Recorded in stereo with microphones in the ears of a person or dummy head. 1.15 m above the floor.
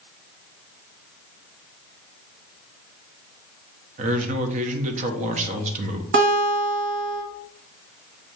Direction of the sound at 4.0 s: 40° right (ahead or behind).